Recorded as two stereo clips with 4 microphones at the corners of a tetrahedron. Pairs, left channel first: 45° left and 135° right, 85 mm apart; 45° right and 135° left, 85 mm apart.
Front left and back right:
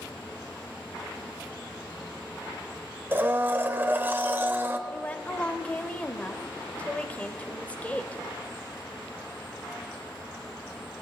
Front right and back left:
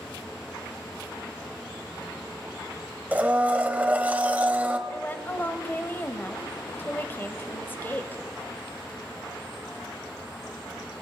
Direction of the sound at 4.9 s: 10° right.